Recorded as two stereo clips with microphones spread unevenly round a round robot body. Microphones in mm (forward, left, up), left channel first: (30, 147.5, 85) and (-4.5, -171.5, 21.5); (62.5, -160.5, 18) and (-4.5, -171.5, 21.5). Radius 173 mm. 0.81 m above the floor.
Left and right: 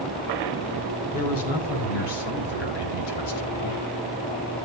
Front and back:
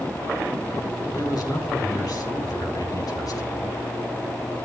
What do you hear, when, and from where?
1.1 s a man speaking: 80° left, 4.5 m